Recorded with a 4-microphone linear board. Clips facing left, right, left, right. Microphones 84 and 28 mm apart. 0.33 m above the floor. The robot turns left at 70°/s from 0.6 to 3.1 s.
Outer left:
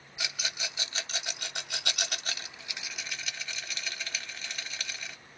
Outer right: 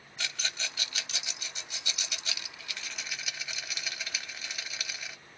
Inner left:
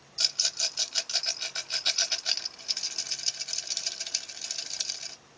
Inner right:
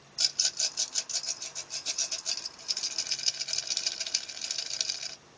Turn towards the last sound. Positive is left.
turn(degrees=-5)  # may be behind; listen again after turning